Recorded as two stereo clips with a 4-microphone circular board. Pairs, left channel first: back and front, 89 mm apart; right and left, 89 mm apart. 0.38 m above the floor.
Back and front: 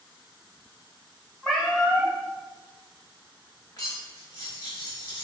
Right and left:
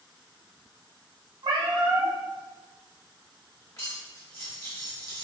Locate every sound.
1.4 s a cat meowing: 100° left, 0.7 m
3.8 s cutlery clinking: 140° right, 1.2 m